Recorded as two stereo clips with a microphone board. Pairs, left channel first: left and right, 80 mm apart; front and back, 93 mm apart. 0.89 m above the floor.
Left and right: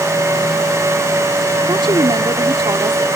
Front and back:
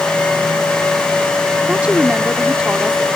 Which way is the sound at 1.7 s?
105° right.